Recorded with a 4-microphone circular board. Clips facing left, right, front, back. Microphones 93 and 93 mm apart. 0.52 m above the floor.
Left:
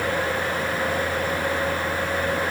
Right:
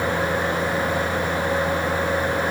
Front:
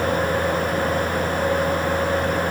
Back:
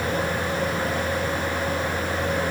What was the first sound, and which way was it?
Only background noise.